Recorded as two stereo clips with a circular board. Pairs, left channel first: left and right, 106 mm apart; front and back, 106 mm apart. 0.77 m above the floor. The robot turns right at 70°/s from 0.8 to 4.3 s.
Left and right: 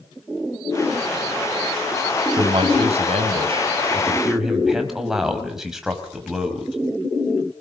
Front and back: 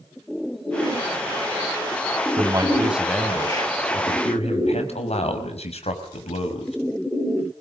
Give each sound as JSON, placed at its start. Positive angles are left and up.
{"t": 2.4, "sound": "a man speaking", "azimuth_deg": -140, "distance_m": 5.0}